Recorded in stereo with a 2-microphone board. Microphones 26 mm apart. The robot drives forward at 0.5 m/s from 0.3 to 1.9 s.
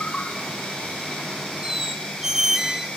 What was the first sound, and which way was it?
An insect, 50° left (ahead or behind).